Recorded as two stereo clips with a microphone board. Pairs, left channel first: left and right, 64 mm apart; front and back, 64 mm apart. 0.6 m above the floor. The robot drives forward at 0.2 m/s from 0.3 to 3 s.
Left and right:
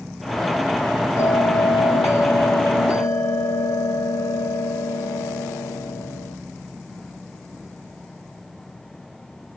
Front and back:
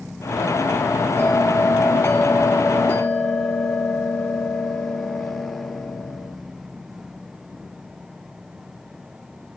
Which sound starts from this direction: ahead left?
A bell, at 1.2 s.